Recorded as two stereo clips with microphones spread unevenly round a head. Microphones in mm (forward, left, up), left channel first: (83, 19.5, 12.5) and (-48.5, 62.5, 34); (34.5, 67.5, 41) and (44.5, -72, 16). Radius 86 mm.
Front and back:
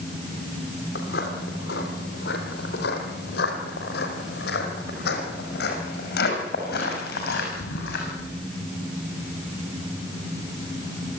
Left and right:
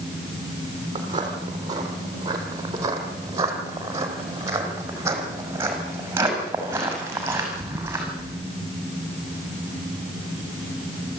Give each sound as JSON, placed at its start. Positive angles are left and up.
{"t": 0.9, "sound": "footsteps", "azimuth_deg": -25, "distance_m": 3.0}